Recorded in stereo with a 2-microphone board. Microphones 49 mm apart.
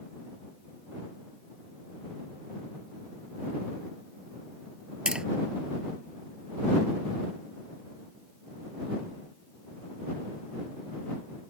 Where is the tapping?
20° right (ahead or behind).